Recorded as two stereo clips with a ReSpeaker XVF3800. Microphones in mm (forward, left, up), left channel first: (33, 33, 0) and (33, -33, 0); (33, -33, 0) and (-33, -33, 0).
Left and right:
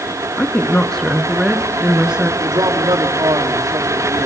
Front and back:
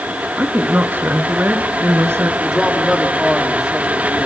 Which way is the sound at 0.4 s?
135° left.